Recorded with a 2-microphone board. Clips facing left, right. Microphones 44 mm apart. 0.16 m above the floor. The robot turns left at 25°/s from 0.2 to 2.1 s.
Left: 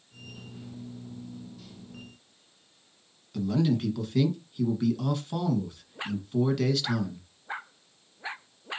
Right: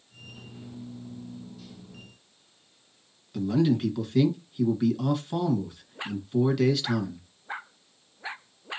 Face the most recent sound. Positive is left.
turn(degrees=-5)  # may be behind; listen again after turning